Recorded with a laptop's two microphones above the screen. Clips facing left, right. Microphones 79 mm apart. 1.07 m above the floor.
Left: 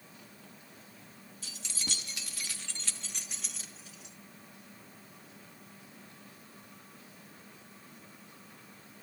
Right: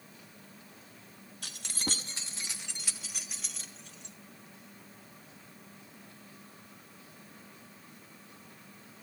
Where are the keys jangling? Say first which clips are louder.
Right 5 dB; 65° right (ahead or behind), 1.0 m; by 4.2 s 5° left (ahead or behind), 2.5 m.